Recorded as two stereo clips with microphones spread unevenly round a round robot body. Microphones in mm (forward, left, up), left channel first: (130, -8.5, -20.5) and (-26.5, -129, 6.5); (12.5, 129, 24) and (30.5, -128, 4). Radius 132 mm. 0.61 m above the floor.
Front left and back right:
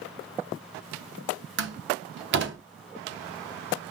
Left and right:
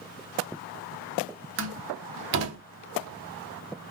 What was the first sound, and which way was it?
A door slam, 120° right.